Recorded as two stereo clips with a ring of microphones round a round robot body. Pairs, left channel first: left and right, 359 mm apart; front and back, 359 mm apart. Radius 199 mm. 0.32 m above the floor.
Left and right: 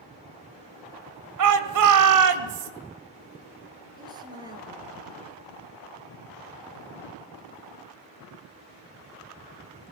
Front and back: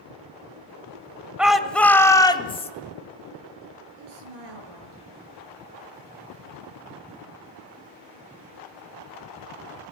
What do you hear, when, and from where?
1.4 s a shout: 95° right, 2 m; by 2.7 s 70° right, 2 m
4.0 s a woman speaking: 170° right, 6.5 m